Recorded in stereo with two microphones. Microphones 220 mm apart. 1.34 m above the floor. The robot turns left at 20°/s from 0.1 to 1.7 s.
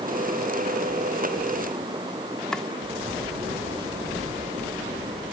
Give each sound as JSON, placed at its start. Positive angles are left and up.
{"t": 2.5, "sound": "chopping", "side_deg": 5}